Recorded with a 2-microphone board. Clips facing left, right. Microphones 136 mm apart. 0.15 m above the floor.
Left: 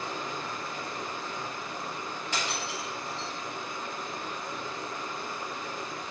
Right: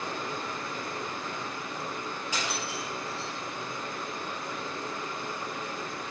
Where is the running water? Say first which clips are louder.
Right 1 dB; 65° right (ahead or behind), 1.2 m.